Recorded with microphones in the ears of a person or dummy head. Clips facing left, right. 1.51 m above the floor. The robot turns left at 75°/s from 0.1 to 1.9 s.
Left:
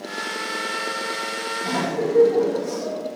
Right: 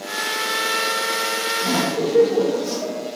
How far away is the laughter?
About 2 m.